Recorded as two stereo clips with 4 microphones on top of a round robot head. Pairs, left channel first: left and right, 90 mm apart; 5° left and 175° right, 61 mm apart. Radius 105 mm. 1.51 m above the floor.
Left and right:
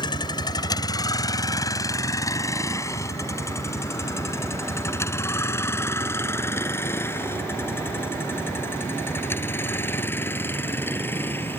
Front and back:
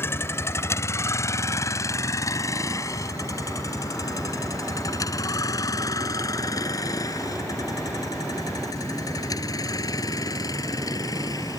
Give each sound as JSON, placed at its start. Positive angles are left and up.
{"t": 0.0, "sound": "a vehicle", "azimuth_deg": 50}